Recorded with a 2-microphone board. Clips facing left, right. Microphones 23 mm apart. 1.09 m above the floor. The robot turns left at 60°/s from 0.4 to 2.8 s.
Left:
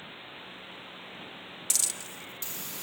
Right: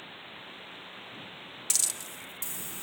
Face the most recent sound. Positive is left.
turn(degrees=120)